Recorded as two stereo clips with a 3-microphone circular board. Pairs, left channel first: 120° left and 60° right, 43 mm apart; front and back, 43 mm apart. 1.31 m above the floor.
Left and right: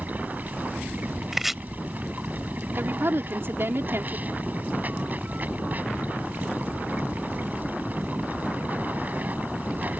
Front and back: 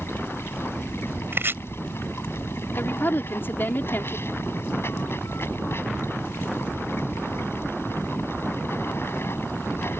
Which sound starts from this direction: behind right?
Chopping, at 1.3 s.